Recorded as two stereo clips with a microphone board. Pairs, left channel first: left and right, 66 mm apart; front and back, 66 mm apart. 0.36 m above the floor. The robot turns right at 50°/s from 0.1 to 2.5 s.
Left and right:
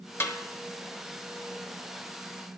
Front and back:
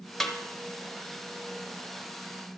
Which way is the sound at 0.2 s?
80° left.